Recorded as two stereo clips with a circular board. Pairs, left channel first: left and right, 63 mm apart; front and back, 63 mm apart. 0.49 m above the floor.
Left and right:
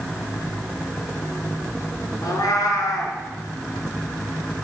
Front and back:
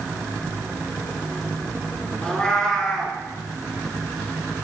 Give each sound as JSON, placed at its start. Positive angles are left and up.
{"t": 2.2, "sound": "a cat meowing", "azimuth_deg": 75, "distance_m": 1.2}